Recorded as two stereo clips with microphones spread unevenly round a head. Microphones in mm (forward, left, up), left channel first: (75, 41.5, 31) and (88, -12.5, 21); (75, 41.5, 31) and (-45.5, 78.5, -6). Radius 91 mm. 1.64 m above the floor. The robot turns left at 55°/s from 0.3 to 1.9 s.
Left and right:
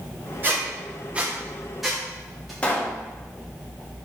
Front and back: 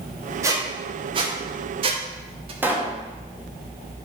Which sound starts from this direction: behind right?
A squeak, at 0.4 s.